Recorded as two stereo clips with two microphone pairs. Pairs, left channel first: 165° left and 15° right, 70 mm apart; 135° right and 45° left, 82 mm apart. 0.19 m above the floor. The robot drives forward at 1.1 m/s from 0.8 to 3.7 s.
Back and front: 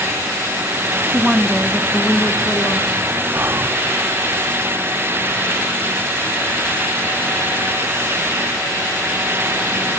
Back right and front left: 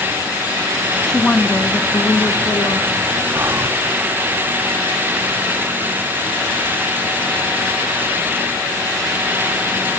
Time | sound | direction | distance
1.0 | a woman speaking | 55° right | 1.1 m
3.3 | whispering | 10° left | 1.6 m